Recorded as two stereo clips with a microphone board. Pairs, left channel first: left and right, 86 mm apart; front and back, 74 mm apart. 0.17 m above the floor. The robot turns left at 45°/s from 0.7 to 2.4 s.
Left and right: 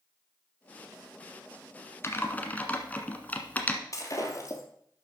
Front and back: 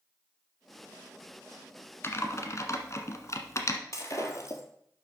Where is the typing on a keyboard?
45° left, 1.3 m; by 3.8 s 25° left, 1.3 m.